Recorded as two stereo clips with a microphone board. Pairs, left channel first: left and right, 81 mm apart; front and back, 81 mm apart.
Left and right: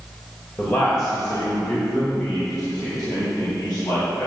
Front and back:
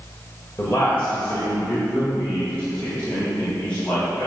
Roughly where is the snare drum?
No snare drum in this recording.